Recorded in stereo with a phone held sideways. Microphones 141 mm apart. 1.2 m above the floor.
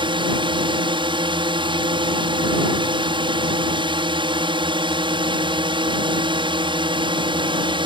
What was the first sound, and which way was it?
A drone, 35° right (ahead or behind).